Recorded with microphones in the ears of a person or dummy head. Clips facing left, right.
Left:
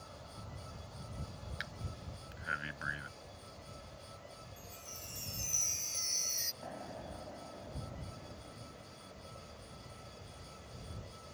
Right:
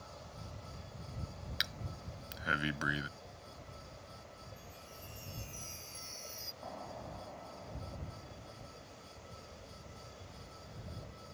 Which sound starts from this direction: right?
Breathing, at 1.6 s.